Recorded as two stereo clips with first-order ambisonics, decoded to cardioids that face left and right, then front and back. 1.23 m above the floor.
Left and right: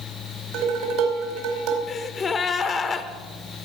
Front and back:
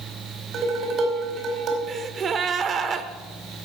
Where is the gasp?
135° left, 1.0 m.